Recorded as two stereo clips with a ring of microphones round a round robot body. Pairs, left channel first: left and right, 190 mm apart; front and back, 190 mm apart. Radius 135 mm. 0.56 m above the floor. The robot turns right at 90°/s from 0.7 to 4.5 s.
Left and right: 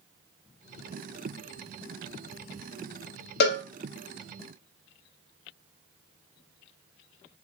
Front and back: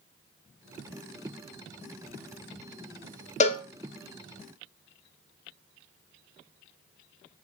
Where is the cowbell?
55° left, 0.6 m; by 3.6 s 75° left, 0.6 m.